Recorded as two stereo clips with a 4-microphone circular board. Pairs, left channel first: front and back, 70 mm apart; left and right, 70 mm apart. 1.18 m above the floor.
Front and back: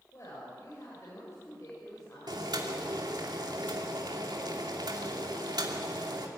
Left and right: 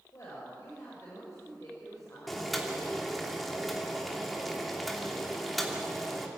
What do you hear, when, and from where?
0.1 s a woman speaking: 45° left, 6.5 m
2.3 s boiling: straight behind, 2.5 m